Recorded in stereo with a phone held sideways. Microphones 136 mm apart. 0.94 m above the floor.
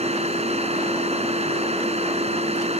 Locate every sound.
0.0 s a machine running: 50° right (ahead or behind)